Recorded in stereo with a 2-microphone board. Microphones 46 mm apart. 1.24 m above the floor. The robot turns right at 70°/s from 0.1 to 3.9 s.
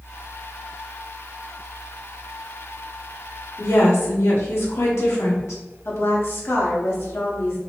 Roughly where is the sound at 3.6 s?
Left.